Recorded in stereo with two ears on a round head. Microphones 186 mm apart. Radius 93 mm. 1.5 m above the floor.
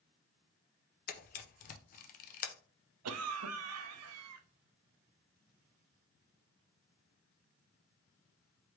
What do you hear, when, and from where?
1.1 s a camera shutter: 40° left (ahead or behind), 0.6 m
3.0 s a cough: 85° right, 0.5 m